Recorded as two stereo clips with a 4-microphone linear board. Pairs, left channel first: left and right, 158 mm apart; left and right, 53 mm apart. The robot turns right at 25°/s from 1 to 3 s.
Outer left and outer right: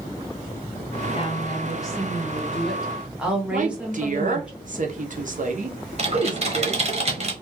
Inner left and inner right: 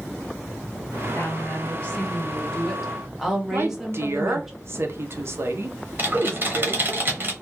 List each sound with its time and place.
1.1 s a woman speaking: 140° left, 0.9 m; by 4.5 s 175° right, 0.9 m
3.5 s a woman speaking: 55° right (ahead or behind), 0.6 m
6.0 s typing on a keyboard: 45° right (ahead or behind), 0.7 m